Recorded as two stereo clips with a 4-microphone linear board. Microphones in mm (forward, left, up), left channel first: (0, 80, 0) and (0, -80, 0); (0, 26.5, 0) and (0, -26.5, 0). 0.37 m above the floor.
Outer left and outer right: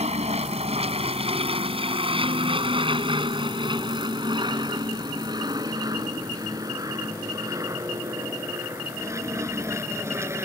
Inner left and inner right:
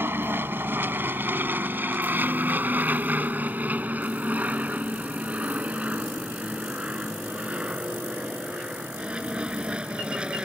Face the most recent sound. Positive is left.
turn(degrees=-15)  # may be behind; listen again after turning